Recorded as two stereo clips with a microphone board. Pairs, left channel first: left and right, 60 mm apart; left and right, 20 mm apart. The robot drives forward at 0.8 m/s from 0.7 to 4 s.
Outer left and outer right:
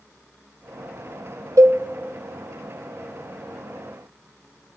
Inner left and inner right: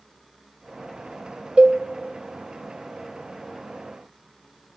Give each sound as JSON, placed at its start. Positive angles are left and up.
{"t": 1.6, "sound": "a cowbell", "side_deg": -70, "distance_m": 0.7}